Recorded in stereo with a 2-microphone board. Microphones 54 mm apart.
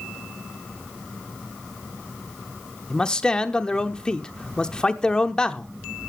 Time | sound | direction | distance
2.9 | a man speaking | 15° left (ahead or behind) | 0.8 m